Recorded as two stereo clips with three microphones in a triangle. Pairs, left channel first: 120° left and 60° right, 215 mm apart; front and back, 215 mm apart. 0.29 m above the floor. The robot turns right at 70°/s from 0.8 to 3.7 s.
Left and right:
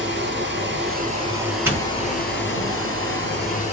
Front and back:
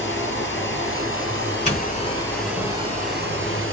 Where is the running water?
25° right, 2.0 m; by 3.7 s straight behind, 2.0 m.